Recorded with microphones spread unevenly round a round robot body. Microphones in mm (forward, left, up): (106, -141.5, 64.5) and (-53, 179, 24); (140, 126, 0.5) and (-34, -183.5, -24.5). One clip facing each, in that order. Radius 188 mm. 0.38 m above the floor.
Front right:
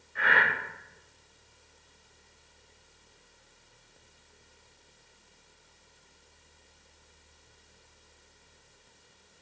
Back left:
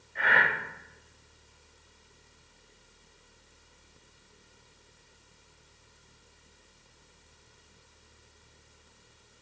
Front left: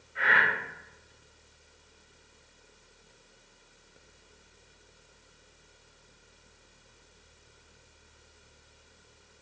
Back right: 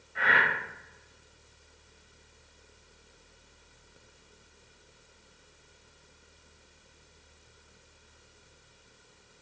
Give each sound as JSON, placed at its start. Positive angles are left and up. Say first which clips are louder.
{"t": 0.1, "sound": "breathing", "louder": "even, back right 1 dB", "azimuth_deg": -140, "distance_m": 1.3}